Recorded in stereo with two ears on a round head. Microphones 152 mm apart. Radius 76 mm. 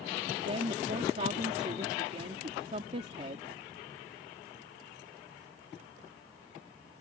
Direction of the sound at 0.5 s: 35° right (ahead or behind).